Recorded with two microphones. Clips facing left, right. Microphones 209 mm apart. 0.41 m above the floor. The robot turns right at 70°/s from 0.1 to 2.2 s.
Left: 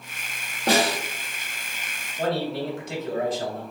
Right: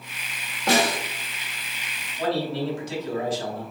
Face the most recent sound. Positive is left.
turn(degrees=55)  # may be behind; listen again after turning